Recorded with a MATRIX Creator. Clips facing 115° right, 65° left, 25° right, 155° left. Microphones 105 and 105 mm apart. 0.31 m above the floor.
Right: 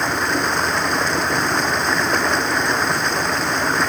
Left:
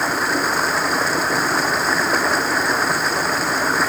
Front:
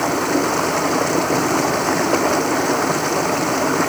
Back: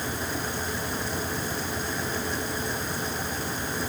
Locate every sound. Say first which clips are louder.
0.0 s running water: even, front 14 dB; 20° right